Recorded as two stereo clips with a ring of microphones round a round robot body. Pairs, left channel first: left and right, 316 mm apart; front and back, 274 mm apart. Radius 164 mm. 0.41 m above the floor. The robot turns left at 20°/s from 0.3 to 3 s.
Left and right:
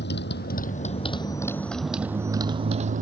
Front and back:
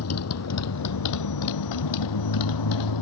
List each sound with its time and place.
0.0 s a motorcycle: 30° left; by 3.0 s 25° right